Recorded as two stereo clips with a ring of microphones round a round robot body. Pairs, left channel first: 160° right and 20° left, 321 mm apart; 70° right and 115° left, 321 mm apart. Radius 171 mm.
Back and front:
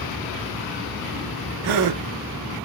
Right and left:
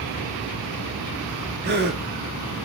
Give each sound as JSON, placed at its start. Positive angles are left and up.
{"t": 1.6, "sound": "a gasp", "azimuth_deg": 50, "distance_m": 0.6}